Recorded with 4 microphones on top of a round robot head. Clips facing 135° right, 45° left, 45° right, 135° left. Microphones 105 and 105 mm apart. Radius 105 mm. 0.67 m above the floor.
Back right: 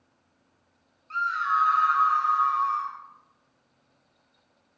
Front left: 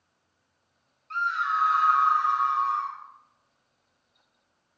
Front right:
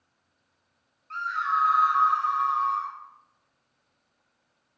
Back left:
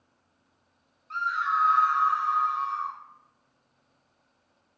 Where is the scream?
160° right, 0.9 m; by 3.0 s 85° right, 1.3 m.